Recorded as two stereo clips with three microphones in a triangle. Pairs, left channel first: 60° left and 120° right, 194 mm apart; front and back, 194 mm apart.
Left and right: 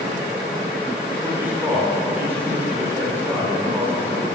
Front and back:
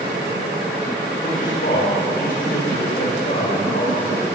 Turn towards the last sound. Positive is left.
turn(degrees=-40)